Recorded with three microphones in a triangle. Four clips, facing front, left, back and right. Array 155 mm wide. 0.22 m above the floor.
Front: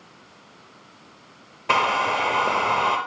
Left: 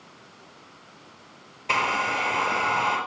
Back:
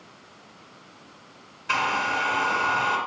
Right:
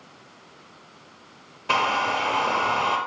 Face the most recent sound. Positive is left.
turn(degrees=-15)